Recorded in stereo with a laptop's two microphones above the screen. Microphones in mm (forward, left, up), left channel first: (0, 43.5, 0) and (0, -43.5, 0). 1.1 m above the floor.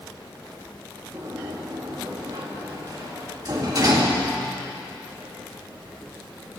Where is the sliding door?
45° right (ahead or behind), 2 m.